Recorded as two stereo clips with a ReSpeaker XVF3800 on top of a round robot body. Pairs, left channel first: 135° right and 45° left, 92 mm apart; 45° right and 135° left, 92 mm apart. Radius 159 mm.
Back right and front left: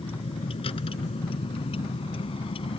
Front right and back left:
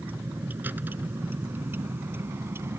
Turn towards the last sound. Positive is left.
turn(degrees=-160)